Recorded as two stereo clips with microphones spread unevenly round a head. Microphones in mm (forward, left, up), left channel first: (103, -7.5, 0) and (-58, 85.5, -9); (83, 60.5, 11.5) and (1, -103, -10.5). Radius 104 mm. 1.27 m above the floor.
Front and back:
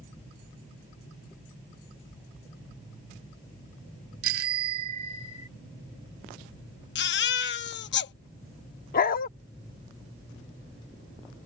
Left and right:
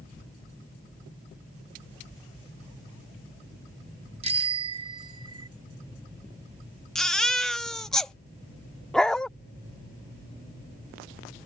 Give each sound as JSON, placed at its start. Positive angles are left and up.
{"t": 4.2, "sound": "a bicycle bell", "azimuth_deg": 180}
{"t": 7.0, "sound": "a baby crying", "azimuth_deg": -20}
{"t": 8.9, "sound": "a dog barking", "azimuth_deg": -15}